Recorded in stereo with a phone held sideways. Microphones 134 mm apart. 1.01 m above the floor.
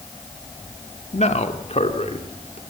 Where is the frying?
No frying in this recording.